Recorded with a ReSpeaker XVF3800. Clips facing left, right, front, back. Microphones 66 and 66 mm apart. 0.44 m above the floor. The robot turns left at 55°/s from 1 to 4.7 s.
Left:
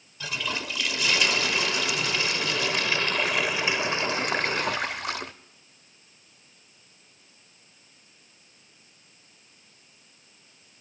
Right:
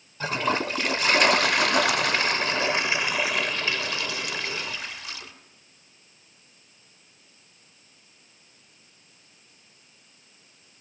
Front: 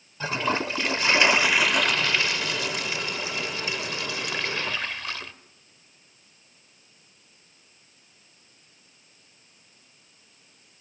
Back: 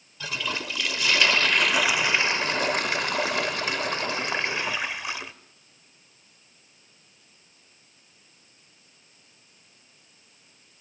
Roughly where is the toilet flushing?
Ahead right.